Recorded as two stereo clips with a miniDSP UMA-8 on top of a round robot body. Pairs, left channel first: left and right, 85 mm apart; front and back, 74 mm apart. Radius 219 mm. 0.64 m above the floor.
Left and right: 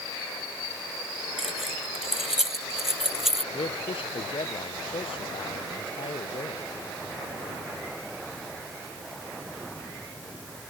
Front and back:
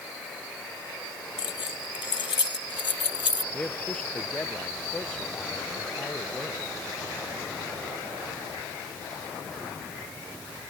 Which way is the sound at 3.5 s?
75° left.